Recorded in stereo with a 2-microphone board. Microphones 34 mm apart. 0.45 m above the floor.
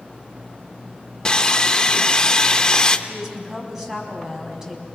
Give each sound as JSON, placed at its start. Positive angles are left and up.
{"t": 1.2, "sound": "sawing", "side_deg": 25, "distance_m": 0.9}
{"t": 3.1, "sound": "a woman speaking", "side_deg": -15, "distance_m": 4.0}